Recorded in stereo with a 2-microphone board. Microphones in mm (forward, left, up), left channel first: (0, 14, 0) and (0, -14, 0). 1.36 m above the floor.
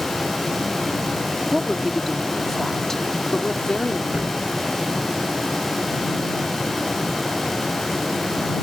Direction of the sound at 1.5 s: 5° right (ahead or behind).